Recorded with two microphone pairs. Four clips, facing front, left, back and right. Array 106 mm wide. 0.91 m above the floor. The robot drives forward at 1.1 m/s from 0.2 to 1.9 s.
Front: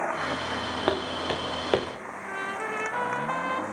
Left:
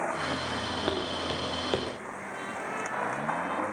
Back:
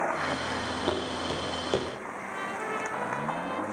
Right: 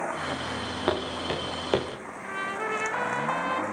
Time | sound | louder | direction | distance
0.9 | footsteps | right 5 dB, front 4 dB | 15° right | 5 m
2.2 | a trumpet | right 7 dB, front 2 dB | 35° right | 4 m